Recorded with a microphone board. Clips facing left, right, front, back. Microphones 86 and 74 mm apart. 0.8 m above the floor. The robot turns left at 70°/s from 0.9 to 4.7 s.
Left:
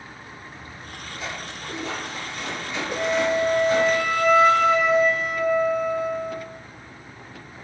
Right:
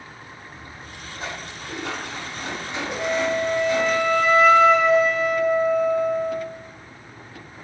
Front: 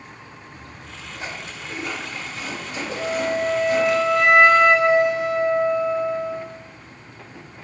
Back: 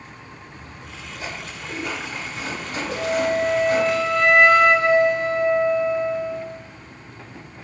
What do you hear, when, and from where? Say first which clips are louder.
0.5 s a splash: even, even; 25° right, 1.2 m; by 4.0 s 120° left, 1.2 m
3.0 s a flute: left 1 dB, back 2 dB; 120° left, 0.8 m; by 6.5 s straight ahead, 0.8 m